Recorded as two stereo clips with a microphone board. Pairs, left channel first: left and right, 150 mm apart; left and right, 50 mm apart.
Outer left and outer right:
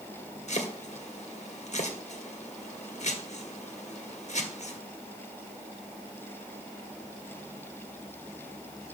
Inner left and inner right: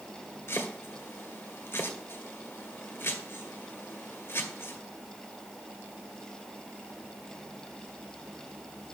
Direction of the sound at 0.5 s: 50° left (ahead or behind).